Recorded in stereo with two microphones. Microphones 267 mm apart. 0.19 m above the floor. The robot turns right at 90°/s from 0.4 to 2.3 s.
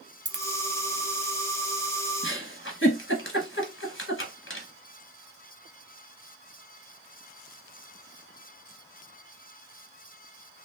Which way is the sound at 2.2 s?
45° left (ahead or behind).